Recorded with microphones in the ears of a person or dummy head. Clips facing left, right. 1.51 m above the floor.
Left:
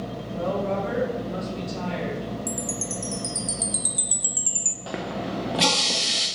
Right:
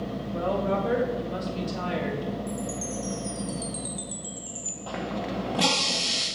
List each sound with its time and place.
0.3 s a woman speaking: 15° right (ahead or behind), 2.5 m
2.5 s a chime: 35° left (ahead or behind), 0.5 m
4.9 s a running tap: 15° left (ahead or behind), 0.6 m